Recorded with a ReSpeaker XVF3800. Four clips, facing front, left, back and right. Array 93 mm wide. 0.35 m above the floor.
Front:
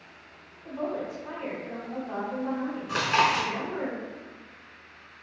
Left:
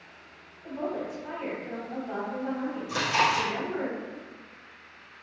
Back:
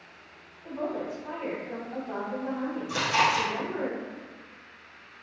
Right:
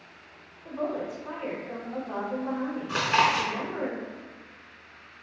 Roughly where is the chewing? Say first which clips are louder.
Right 2 dB, front 1 dB; ahead right.